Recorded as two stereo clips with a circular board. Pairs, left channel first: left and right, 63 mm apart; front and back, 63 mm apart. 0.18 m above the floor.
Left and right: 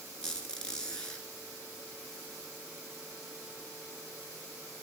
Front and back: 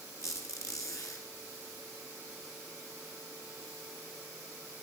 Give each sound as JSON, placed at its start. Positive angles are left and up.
{"t": 0.2, "sound": "a squeak", "azimuth_deg": 15, "distance_m": 1.8}